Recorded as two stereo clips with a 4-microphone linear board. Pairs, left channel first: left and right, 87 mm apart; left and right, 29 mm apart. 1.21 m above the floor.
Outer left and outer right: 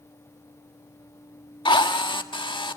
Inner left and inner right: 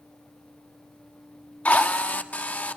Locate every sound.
1.6 s a drill: 70° left (ahead or behind), 1.4 m